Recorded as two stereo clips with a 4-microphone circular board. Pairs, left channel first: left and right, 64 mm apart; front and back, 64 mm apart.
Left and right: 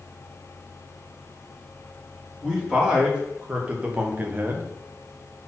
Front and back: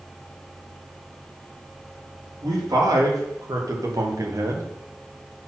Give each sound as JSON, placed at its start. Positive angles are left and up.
{"t": 2.4, "sound": "a man speaking", "azimuth_deg": -170, "distance_m": 3.5}